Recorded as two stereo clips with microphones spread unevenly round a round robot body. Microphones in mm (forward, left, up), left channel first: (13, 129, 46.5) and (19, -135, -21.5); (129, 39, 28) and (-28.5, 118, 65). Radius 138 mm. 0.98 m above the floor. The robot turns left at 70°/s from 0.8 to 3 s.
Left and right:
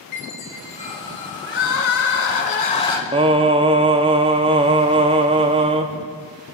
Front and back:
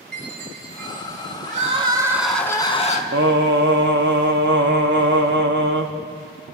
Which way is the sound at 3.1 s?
165° right.